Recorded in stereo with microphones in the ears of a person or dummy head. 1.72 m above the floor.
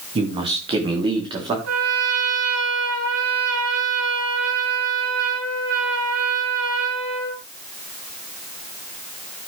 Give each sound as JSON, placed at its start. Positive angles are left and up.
{"t": 0.1, "sound": "a man speaking", "side_deg": -30, "distance_m": 2.5}
{"t": 1.6, "sound": "a trumpet", "side_deg": -75, "distance_m": 9.0}